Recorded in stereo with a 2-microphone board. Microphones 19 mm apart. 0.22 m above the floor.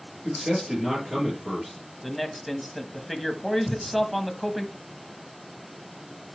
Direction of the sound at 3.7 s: 35° left (ahead or behind).